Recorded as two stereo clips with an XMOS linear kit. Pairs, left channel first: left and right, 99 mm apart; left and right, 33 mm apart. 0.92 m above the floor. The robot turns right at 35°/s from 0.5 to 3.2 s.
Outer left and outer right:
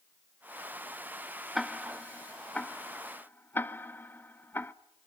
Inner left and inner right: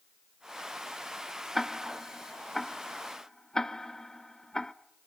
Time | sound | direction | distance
1.6 | ticking | centre (ahead or behind) | 0.7 m